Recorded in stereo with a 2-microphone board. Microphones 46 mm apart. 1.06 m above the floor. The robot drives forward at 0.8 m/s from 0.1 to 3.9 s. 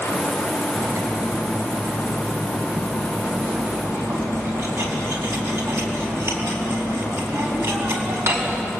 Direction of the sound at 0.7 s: 65° right (ahead or behind).